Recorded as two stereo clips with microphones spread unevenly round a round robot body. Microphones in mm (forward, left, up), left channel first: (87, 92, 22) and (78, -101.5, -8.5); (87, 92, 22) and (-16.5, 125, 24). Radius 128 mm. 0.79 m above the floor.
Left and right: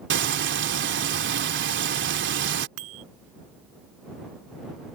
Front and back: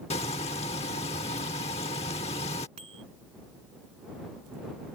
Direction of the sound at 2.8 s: 130° right.